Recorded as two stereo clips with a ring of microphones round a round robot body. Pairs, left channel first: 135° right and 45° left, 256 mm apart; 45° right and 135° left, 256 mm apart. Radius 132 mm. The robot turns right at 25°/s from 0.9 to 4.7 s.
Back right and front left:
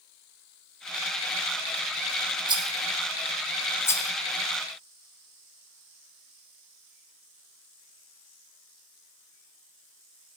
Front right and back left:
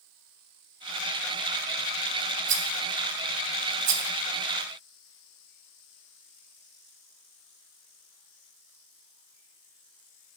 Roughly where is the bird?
No bird in this recording.